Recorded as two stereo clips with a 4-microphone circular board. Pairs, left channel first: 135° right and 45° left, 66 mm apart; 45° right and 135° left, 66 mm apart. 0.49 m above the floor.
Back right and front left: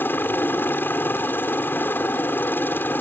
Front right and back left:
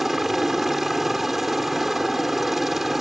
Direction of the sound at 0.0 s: 140° right.